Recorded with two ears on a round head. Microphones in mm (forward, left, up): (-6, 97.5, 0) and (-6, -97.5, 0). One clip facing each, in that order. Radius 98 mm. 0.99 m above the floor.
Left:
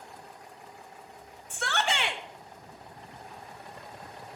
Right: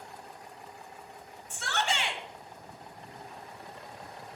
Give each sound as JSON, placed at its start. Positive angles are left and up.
{"t": 1.5, "sound": "a shout", "side_deg": 50, "distance_m": 1.4}